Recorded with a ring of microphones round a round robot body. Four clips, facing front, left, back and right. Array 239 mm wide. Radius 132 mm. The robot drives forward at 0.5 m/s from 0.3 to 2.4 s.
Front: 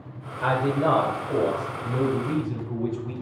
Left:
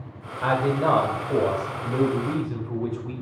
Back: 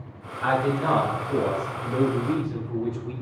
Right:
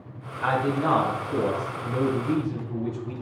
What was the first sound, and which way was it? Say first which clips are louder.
A man speaking: left 2 dB, front 1 dB; 50° left.